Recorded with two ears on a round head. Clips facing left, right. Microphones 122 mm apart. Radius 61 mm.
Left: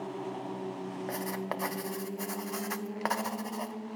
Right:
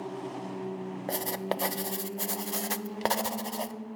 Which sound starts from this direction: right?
Writing, at 1.1 s.